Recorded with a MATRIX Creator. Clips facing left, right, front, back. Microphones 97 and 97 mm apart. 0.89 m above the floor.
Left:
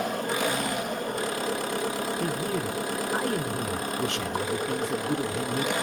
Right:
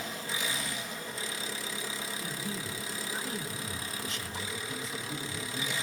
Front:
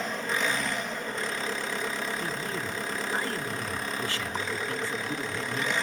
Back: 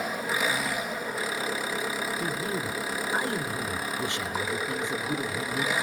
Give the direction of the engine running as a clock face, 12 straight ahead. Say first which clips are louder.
Left 10 dB, back 1 dB; 9 o'clock.